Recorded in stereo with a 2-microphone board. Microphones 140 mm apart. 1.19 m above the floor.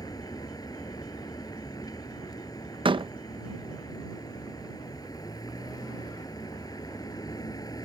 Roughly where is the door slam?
Right.